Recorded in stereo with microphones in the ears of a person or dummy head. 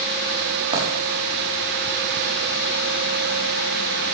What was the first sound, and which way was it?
A dropped coin, 25° right (ahead or behind).